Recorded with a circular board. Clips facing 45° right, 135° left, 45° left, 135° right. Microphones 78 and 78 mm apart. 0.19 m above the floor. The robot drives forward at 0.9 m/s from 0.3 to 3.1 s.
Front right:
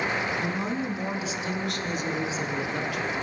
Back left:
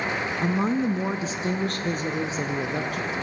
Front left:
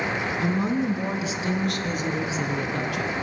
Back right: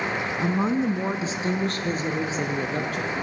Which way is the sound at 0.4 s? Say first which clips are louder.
Back left 5 dB, back right 2 dB; 175° left.